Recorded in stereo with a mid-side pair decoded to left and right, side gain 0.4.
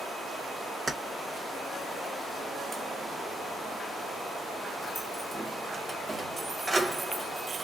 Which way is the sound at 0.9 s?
25° right.